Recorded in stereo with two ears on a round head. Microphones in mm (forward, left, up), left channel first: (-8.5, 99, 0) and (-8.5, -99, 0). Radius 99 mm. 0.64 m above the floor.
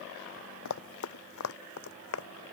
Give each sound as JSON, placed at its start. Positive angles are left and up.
{"t": 0.7, "sound": "running footsteps", "side_deg": 70}